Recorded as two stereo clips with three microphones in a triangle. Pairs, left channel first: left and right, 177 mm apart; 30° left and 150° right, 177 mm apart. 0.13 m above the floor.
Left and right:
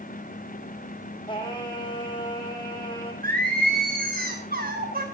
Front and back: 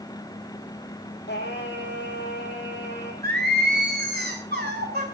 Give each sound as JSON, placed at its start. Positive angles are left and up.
{"t": 1.3, "sound": "singing", "azimuth_deg": 30, "distance_m": 2.0}
{"t": 3.2, "sound": "singing", "azimuth_deg": -125, "distance_m": 3.5}